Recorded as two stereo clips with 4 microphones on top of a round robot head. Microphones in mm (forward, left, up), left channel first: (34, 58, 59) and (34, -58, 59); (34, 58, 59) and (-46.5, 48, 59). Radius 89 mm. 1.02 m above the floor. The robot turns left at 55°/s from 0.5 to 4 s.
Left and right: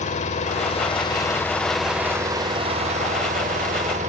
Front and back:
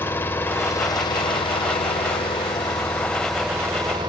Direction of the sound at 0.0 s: 70° left.